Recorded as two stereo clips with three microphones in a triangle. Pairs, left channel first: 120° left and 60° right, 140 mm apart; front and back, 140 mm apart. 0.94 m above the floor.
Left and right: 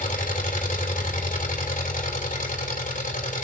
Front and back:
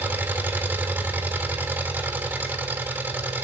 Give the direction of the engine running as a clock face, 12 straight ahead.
9 o'clock.